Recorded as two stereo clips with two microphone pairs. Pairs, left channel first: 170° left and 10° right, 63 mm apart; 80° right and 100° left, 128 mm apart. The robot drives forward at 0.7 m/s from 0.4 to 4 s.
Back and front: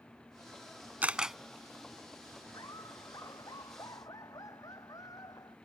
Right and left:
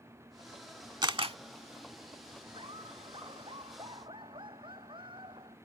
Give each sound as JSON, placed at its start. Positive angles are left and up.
{"t": 1.0, "sound": "a camera shutter", "azimuth_deg": 50}
{"t": 2.5, "sound": "laughter", "azimuth_deg": 150}